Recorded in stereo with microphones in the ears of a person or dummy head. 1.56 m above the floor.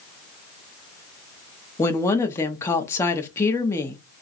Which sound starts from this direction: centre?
A woman speaking, at 1.8 s.